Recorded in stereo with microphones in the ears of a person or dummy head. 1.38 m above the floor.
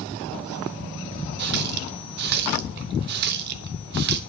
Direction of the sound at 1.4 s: 55° right (ahead or behind).